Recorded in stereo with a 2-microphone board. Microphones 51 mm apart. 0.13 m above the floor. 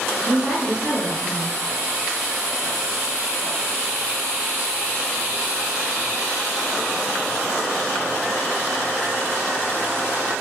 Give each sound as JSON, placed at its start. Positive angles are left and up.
{"t": 0.3, "sound": "a woman speaking", "side_deg": -30, "distance_m": 1.8}